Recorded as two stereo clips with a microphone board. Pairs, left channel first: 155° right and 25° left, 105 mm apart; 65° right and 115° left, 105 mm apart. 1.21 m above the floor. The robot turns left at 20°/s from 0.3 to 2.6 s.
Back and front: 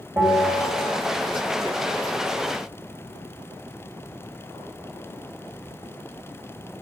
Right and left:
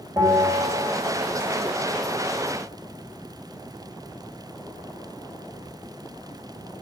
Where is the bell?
70° left, 1.3 m; by 1.0 s 55° left, 1.3 m.